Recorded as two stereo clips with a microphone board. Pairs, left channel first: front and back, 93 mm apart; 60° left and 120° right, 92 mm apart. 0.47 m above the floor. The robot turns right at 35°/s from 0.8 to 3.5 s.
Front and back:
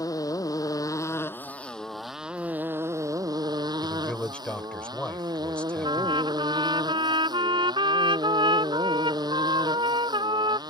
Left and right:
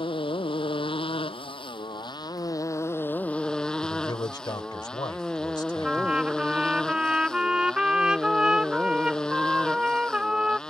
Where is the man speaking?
75° left.